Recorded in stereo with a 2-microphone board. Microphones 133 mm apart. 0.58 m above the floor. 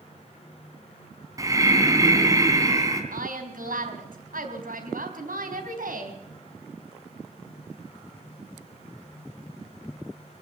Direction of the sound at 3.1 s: 80° right.